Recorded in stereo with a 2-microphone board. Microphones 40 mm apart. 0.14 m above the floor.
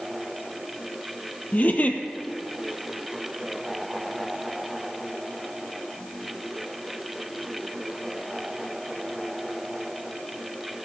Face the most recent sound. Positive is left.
turn(degrees=45)  # may be behind; listen again after turning